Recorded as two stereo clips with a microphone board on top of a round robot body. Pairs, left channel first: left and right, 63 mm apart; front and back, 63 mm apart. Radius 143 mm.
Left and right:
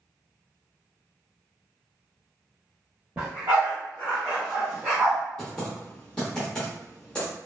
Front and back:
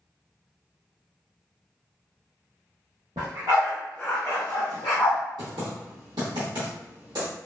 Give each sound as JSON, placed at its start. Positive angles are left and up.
{"t": 3.2, "sound": "a dog barking", "azimuth_deg": -160, "distance_m": 0.7}
{"t": 5.4, "sound": "typing on a keyboard", "azimuth_deg": 165, "distance_m": 0.6}